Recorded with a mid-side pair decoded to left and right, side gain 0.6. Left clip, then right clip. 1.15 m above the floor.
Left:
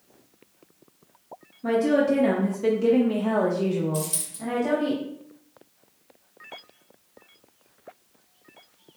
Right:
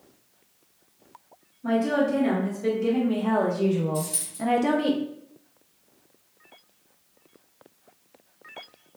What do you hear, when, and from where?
1.6 s a woman speaking: 60° left, 1.3 m; by 4.9 s 65° right, 0.8 m
3.9 s a dropped coin: 65° left, 1.9 m